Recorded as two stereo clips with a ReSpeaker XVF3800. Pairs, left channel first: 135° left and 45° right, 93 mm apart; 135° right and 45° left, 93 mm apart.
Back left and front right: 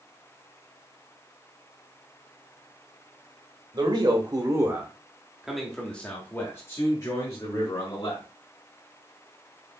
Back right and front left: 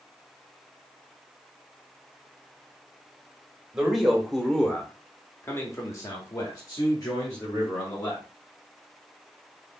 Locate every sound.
3.7 s a man speaking: 35° right, 1.3 m; by 8.2 s 175° left, 2.0 m